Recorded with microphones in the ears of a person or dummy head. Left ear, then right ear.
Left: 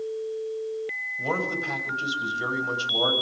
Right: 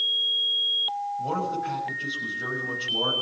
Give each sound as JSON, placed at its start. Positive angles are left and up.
{"t": 1.2, "sound": "a man speaking", "side_deg": 75, "distance_m": 6.5}